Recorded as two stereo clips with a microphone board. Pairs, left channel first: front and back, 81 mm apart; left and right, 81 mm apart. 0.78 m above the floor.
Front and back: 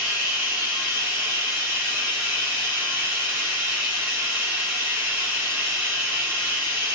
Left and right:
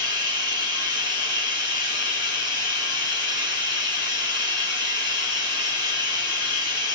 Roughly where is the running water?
Behind right.